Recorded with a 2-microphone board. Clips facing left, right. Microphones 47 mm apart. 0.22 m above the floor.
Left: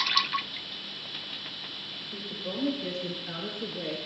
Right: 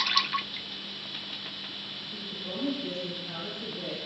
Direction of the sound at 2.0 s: 40° left (ahead or behind).